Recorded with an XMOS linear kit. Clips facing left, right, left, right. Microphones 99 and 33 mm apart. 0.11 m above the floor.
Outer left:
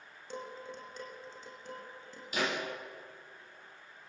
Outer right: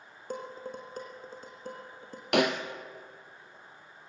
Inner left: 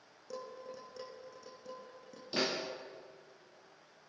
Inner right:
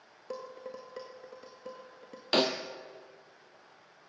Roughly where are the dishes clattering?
Right.